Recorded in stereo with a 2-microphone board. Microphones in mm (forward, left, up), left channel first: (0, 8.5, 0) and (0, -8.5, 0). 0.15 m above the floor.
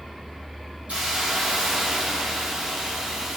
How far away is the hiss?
About 5.5 m.